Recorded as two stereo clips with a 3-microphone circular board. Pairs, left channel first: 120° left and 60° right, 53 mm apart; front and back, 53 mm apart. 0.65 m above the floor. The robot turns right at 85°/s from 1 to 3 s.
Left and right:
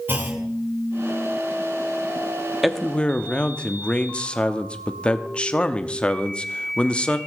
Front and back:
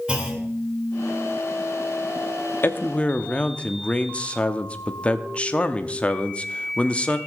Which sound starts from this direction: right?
A clunk, at 0.1 s.